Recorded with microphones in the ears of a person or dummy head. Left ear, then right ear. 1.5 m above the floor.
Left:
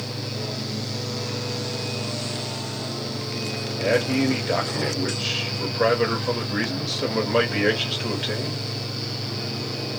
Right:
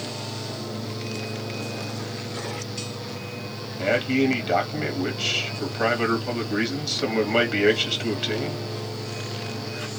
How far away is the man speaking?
About 1.1 m.